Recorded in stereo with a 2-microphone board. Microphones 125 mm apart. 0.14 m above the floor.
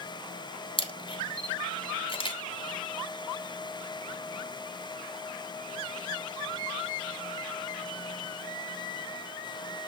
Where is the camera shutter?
45° left (ahead or behind), 1.2 m.